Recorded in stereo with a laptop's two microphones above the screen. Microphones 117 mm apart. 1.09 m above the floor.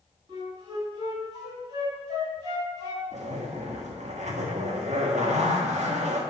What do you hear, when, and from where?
0.3 s a flute: 35° right (ahead or behind), 3 m
3.1 s a zipper: 75° right (ahead or behind), 1.5 m